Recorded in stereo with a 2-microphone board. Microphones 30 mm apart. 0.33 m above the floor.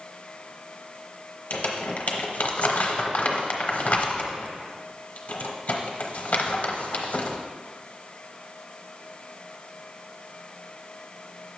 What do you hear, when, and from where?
1.5 s crumpling: 50° left (ahead or behind), 0.9 m